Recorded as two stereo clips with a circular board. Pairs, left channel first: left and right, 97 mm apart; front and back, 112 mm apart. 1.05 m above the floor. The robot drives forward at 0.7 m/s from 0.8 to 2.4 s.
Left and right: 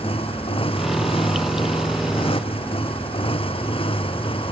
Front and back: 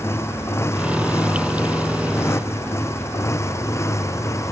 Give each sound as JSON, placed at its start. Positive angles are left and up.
{"t": 0.0, "sound": "a motorcycle", "azimuth_deg": 70}